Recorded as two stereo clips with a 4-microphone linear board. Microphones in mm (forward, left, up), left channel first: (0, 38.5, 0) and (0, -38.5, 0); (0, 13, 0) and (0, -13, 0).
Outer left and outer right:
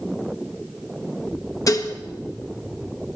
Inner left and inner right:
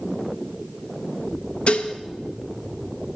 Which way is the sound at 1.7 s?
50° left (ahead or behind).